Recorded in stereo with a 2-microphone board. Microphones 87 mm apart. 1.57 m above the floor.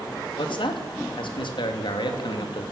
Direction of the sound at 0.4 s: 70° left (ahead or behind).